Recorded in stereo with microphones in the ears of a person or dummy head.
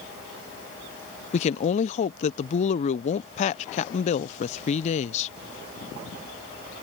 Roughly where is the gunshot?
I don't hear a gunshot.